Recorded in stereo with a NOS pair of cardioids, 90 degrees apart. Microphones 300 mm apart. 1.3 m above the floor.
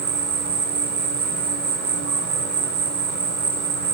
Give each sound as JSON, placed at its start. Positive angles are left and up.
{"t": 0.0, "sound": "an insect", "azimuth_deg": -70, "distance_m": 3.0}